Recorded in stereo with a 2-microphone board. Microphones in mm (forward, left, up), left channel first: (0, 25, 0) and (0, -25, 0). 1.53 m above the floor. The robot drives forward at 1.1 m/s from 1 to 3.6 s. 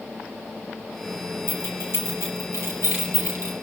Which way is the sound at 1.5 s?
55° left (ahead or behind).